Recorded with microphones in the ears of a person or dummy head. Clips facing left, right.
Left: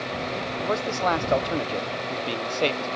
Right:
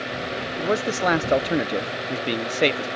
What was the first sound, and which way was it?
A man speaking, 25° right (ahead or behind).